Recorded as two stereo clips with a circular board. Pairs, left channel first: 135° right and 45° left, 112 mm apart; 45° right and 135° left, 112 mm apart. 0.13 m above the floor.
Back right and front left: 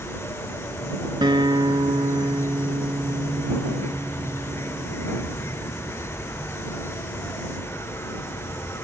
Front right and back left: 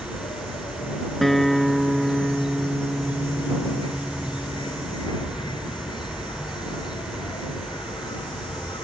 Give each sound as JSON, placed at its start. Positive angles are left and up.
{"t": 0.0, "sound": "an insect", "azimuth_deg": -75}
{"t": 1.2, "sound": "a guitar", "azimuth_deg": 45}